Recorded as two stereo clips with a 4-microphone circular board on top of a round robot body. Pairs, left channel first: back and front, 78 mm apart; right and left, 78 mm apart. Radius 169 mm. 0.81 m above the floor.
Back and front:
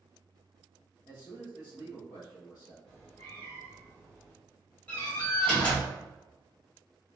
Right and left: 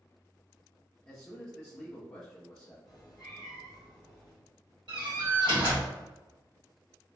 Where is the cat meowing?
110° left, 0.6 m.